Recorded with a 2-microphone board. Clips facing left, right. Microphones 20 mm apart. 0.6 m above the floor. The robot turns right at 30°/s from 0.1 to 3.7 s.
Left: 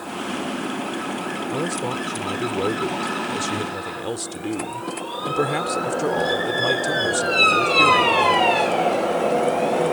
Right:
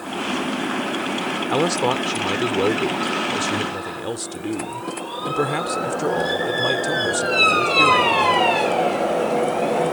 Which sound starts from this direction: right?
A man speaking, at 1.5 s.